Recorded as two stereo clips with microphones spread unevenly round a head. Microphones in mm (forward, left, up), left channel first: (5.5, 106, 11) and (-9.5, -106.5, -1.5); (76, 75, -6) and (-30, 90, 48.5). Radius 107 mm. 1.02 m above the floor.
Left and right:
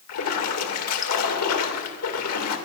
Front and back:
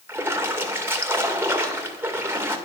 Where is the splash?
105° left, 2.0 m.